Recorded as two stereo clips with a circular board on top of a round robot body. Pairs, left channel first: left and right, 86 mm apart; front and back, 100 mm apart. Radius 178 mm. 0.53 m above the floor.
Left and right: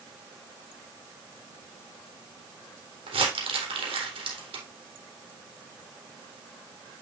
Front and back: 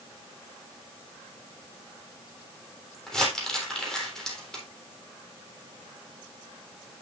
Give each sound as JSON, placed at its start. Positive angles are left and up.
{"t": 3.1, "sound": "crumpling", "azimuth_deg": -85, "distance_m": 3.5}